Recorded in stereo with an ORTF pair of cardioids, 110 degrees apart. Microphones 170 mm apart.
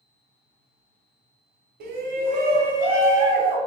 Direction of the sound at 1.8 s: 60° right.